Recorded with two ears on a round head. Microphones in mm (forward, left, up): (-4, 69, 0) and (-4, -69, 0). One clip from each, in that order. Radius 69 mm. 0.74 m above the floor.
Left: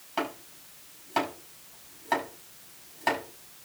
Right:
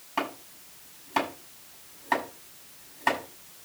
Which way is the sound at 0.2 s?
5° left (ahead or behind).